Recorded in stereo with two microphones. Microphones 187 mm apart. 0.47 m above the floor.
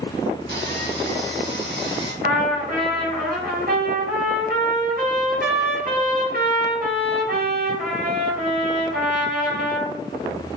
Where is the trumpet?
55° right (ahead or behind), 3.5 m.